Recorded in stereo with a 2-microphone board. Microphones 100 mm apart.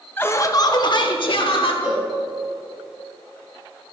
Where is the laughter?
20° left (ahead or behind), 0.7 m; by 1.7 s 65° left (ahead or behind), 1.5 m.